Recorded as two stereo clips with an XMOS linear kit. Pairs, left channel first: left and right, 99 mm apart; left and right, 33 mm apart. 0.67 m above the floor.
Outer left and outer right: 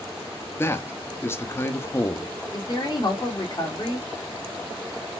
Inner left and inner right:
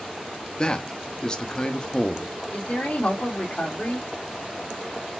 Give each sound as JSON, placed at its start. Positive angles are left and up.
{"t": 0.6, "sound": "a man speaking", "side_deg": 25, "distance_m": 0.6}
{"t": 2.5, "sound": "a woman speaking", "side_deg": 45, "distance_m": 2.0}